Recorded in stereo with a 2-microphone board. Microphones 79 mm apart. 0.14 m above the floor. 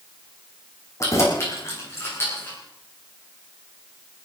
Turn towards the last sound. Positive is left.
turn(degrees=30)  # may be behind; listen again after turning